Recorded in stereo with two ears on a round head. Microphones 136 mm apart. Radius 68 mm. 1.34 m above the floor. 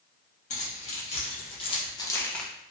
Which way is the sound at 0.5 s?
50° left (ahead or behind).